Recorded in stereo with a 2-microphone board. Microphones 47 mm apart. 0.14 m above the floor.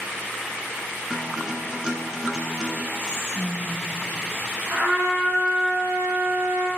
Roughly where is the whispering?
Right.